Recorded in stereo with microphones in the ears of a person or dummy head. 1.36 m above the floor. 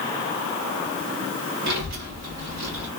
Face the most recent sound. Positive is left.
turn(degrees=-60)  # may be behind; listen again after turning